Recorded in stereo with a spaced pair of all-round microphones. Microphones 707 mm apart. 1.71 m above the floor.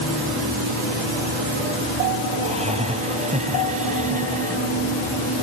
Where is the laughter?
10° right (ahead or behind).